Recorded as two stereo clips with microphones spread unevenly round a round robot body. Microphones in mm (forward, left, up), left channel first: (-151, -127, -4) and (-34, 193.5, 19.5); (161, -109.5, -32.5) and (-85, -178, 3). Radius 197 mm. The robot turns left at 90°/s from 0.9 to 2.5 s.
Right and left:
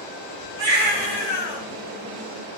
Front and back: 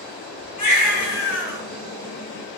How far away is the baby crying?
About 5.5 m.